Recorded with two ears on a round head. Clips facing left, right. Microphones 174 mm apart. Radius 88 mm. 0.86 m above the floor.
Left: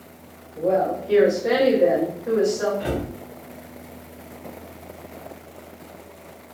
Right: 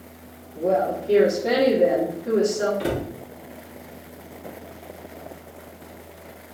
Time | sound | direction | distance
0.6 | a woman speaking | 35° right (ahead or behind) | 1.4 m
2.8 | a cupboard door | 40° right (ahead or behind) | 1.1 m